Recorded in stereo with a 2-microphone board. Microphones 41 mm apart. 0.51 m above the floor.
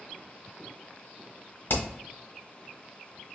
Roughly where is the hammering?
Left.